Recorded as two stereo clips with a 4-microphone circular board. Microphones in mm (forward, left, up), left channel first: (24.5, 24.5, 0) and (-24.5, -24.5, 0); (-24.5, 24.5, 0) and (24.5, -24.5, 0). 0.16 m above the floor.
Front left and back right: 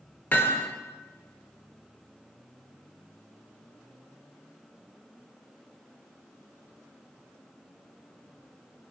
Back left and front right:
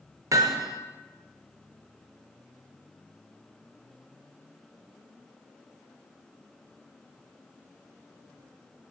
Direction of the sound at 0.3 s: 20° right.